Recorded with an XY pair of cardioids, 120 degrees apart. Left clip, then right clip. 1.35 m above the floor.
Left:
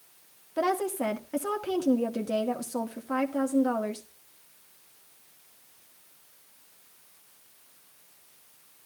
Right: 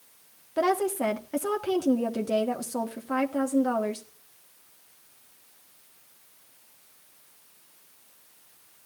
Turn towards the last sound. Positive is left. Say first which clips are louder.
# right 3 dB
turn(degrees=-10)